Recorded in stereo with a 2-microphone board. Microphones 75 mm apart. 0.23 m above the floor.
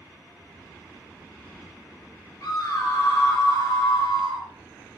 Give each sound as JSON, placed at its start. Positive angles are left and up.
{"t": 2.4, "sound": "a scream", "side_deg": 50, "distance_m": 4.0}